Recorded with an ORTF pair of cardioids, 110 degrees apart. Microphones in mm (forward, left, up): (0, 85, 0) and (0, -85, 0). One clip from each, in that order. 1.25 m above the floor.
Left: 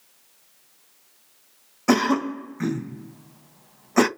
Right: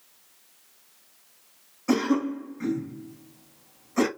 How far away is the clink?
I don't hear a clink.